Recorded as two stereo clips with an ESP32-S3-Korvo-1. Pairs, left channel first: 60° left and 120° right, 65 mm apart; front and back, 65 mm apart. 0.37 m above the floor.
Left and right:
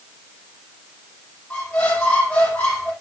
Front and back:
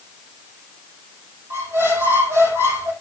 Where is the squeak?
130° left, 6.5 m.